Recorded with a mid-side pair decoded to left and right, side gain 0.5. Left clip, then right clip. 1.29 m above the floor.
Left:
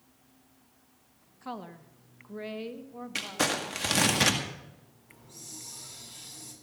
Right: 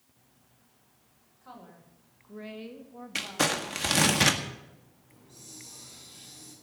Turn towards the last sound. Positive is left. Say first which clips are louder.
# left 3 dB
turn(degrees=30)